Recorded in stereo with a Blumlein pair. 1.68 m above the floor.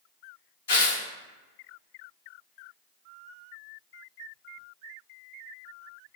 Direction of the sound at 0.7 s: 60° left.